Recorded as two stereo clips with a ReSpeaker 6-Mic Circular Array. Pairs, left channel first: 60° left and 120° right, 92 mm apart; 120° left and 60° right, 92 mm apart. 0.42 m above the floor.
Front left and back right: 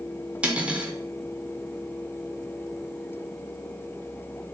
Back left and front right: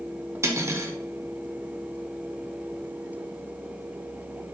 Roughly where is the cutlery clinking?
Ahead right.